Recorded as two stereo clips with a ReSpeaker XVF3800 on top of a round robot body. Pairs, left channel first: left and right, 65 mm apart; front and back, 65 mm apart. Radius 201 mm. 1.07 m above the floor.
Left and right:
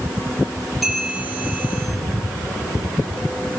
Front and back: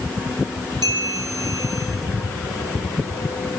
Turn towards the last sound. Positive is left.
turn(degrees=180)